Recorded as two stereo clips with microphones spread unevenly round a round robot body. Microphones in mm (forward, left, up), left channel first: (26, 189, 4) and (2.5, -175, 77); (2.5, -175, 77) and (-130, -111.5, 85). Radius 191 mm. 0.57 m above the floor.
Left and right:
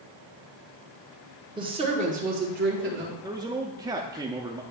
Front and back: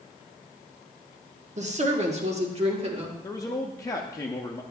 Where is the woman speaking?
Straight behind, 1.3 m; by 3.1 s 160° right, 2 m.